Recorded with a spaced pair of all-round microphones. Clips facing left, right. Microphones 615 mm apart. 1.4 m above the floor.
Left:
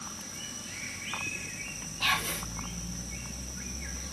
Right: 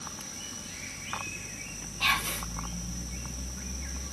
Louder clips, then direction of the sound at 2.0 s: Even; 35° right (ahead or behind).